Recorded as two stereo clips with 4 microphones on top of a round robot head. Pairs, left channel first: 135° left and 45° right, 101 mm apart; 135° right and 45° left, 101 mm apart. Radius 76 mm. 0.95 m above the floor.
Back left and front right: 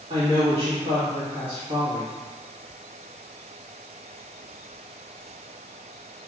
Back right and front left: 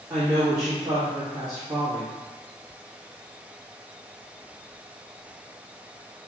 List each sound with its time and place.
0.1 s a woman speaking: 5° right, 1.5 m